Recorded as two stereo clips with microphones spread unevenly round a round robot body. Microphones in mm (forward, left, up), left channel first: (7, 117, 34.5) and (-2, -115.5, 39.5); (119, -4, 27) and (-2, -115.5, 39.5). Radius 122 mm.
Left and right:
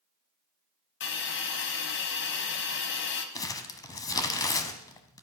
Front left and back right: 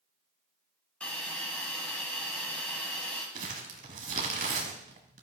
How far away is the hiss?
About 1.3 m.